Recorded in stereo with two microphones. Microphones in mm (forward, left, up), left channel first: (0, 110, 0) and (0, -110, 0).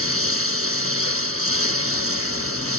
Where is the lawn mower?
85° right; by 2.8 s 90° right.